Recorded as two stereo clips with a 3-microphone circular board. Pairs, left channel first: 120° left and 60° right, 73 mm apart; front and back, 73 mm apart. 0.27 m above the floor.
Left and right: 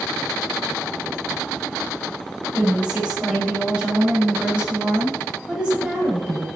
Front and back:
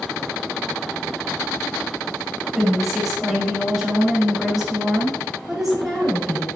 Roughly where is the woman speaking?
Right.